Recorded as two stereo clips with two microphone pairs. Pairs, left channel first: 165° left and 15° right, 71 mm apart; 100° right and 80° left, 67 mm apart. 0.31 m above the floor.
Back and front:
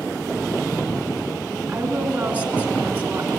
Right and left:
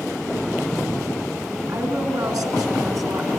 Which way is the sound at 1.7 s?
55° left.